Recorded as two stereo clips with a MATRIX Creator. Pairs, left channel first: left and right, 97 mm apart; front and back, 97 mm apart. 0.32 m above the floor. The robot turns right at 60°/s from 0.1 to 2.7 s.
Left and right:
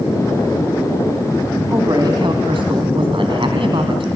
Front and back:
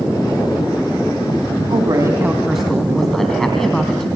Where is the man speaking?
145° right, 3 m; by 4.1 s 85° right, 3 m.